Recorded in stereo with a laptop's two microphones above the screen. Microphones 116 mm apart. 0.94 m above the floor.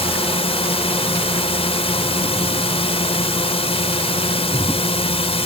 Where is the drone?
55° left (ahead or behind).